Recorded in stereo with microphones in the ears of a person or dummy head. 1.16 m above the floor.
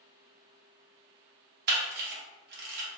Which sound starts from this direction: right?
A camera shutter, at 1.7 s.